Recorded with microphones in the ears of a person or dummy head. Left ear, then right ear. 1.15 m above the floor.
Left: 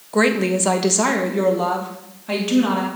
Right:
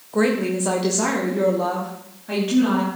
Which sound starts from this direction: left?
A woman speaking, at 0.1 s.